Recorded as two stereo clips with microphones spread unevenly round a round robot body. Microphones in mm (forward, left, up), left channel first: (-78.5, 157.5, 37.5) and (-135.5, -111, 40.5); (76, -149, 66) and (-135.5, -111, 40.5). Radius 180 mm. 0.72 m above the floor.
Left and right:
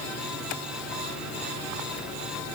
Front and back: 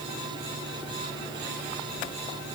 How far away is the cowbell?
No cowbell in this recording.